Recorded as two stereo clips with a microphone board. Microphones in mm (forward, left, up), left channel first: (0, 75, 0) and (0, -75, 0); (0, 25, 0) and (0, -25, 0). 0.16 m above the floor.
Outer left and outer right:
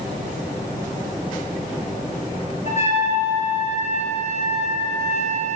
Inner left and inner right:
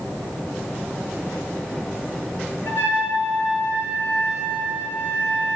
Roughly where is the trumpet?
Left.